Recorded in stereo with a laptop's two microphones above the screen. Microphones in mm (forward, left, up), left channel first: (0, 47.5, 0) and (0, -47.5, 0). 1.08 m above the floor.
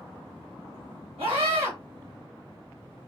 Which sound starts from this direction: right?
A scream, at 1.2 s.